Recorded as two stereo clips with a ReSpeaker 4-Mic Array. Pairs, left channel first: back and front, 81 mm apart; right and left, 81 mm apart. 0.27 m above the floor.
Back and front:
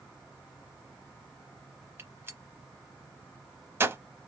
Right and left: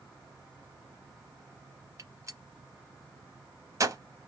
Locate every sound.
2.0 s a gunshot: 55° left, 0.6 m